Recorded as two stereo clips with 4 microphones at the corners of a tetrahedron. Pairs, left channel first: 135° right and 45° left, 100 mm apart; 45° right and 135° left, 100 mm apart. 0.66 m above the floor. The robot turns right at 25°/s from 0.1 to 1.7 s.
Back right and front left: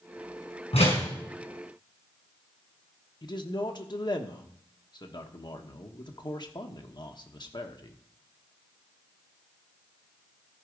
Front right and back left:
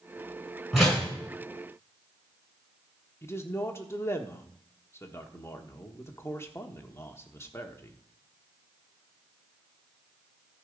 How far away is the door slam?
About 5.5 m.